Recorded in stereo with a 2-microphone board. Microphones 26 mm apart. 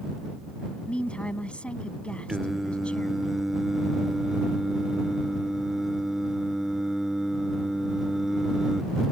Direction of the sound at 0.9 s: 45° left (ahead or behind).